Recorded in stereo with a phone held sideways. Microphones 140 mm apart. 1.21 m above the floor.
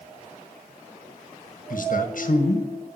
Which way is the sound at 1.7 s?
65° left (ahead or behind).